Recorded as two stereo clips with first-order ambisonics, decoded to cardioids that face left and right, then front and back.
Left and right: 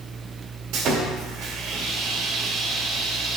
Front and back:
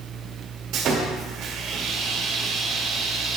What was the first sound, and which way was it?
Sawing, 130° right.